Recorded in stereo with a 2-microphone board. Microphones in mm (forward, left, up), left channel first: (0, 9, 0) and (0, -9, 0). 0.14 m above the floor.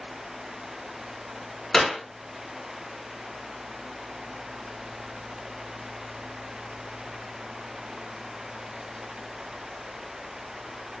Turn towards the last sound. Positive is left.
turn(degrees=25)  # may be behind; listen again after turning